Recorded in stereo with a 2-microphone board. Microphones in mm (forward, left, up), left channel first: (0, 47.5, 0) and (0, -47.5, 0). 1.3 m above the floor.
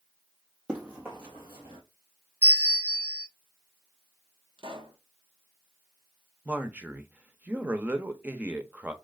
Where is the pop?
60° right (ahead or behind), 0.9 m.